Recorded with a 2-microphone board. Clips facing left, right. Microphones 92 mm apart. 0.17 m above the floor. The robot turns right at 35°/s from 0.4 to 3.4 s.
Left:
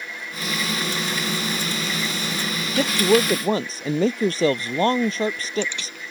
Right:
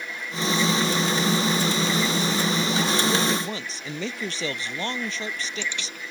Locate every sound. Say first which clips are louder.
2.8 s a woman speaking: left 10 dB; 60° left (ahead or behind); by 6.0 s 40° left (ahead or behind)